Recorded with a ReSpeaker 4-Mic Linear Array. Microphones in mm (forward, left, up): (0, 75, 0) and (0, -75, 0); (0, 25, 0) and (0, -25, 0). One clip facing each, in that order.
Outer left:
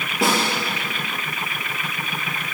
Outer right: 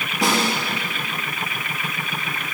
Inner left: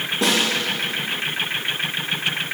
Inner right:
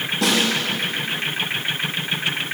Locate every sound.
0.2 s a snare drum: 25° left (ahead or behind), 4.5 m